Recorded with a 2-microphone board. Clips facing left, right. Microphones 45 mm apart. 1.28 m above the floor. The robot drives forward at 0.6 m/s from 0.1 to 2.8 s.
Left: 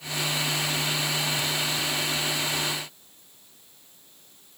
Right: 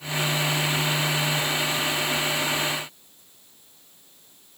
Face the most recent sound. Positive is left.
No sound to turn to.